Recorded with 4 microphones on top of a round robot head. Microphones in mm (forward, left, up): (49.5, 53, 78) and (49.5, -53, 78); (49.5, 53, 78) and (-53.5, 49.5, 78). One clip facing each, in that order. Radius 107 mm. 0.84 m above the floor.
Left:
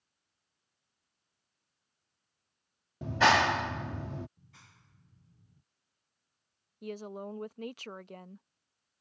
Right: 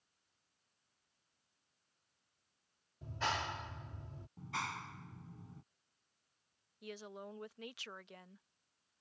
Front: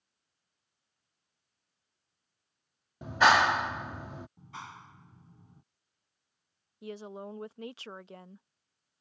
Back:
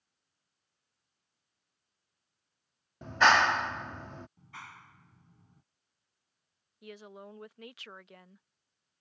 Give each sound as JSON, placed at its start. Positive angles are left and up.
{"t": 3.0, "sound": "a clap", "azimuth_deg": 85}
{"t": 4.4, "sound": "a clap", "azimuth_deg": -70}
{"t": 6.8, "sound": "a woman speaking", "azimuth_deg": 55}